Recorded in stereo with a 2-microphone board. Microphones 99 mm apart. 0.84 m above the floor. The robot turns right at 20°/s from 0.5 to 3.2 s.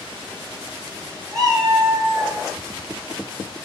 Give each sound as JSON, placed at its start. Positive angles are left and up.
{"t": 1.3, "sound": "a cat meowing", "side_deg": -45, "distance_m": 1.3}